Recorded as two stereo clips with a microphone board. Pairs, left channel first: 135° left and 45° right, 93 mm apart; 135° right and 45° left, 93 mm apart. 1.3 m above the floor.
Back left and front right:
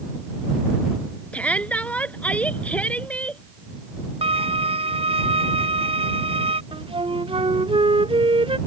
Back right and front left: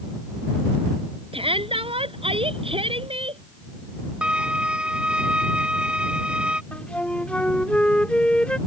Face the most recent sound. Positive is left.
turn(degrees=-60)